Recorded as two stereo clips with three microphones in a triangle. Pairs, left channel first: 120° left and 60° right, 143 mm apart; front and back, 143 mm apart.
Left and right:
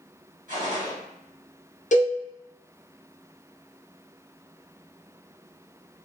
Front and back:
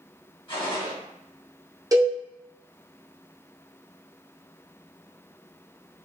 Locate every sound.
0.5 s a gunshot: 50° right, 1.8 m
1.9 s a cowbell: 120° left, 0.8 m